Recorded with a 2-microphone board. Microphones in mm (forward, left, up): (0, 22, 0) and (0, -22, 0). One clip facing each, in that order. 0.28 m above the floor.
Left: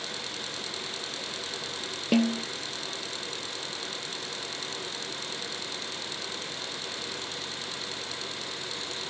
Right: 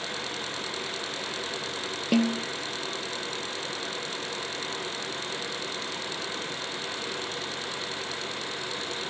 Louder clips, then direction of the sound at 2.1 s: Even; 5° left (ahead or behind).